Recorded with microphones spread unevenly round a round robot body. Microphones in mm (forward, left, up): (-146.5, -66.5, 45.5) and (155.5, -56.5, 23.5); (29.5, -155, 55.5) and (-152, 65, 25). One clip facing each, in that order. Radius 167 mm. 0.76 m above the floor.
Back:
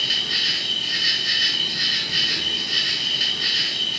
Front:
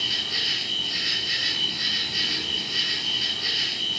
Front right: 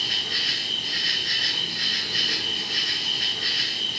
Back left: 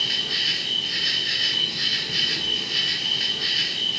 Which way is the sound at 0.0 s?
170° right.